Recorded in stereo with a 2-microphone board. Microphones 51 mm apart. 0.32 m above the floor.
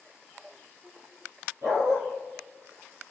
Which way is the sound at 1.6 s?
80° right.